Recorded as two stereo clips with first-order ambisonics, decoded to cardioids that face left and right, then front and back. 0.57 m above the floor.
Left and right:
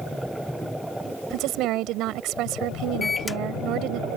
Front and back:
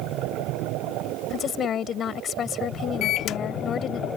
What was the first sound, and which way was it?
A woman speaking, 55° right.